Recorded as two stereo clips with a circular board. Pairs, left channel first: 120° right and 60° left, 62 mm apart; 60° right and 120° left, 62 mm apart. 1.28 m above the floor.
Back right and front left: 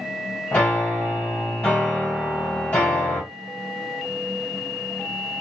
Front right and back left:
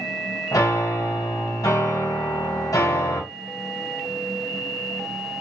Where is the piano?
60° right, 2 m.